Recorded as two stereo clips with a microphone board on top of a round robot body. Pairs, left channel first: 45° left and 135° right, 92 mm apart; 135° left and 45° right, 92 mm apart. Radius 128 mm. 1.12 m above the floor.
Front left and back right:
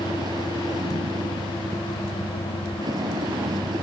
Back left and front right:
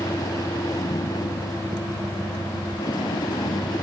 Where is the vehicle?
Straight behind.